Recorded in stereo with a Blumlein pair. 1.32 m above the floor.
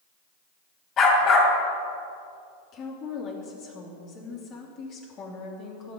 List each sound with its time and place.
1.0 s a dog barking: 30° left, 3 m
2.7 s a woman speaking: 35° left, 3 m